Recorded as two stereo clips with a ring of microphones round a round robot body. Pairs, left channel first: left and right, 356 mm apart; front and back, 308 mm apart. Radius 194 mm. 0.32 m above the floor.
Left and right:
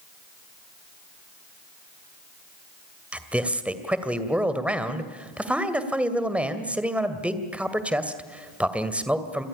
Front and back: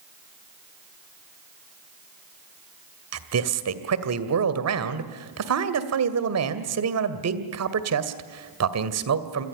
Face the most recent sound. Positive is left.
turn(degrees=-175)